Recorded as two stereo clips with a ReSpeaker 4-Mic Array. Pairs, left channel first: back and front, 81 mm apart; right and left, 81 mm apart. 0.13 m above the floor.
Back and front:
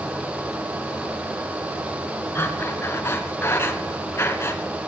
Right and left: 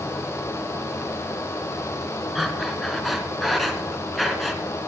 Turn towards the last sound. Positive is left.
turn(degrees=180)